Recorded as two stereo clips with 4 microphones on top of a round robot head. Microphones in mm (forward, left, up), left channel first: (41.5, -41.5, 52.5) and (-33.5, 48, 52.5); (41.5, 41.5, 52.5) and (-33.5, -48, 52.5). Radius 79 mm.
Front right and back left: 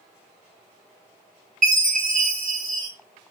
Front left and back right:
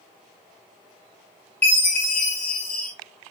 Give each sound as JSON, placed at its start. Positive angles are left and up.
{"t": 1.6, "sound": "a chime", "azimuth_deg": 125, "distance_m": 5.5}